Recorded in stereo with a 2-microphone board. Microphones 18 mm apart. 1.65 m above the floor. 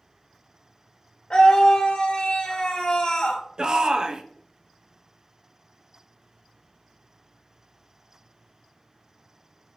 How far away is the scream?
About 2 m.